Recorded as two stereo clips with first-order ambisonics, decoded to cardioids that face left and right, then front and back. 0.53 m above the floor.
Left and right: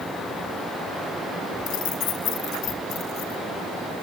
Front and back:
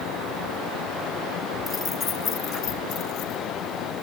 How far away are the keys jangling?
About 0.9 m.